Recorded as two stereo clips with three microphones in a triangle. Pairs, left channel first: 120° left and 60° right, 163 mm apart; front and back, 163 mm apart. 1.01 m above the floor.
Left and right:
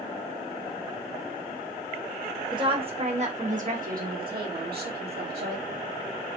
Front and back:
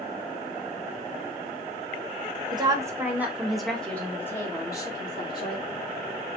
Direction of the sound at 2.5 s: 120° right.